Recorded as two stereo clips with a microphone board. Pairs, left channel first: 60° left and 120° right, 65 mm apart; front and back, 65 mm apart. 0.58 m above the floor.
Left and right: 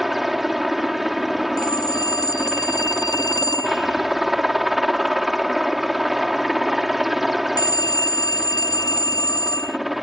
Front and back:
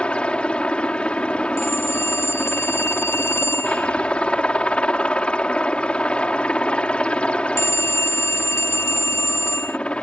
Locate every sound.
0.0 s a helicopter: 40° right
1.6 s a phone ringing: 50° left